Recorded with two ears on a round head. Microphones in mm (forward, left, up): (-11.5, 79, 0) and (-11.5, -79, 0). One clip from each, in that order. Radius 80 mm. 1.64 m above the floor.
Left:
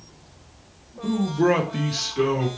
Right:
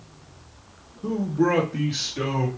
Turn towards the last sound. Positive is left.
turn(degrees=35)  # may be behind; listen again after turning